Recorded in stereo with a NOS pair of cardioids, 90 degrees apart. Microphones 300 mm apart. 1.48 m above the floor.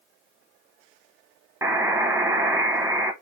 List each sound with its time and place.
1.6 s a buzzer: 10° right, 1.0 m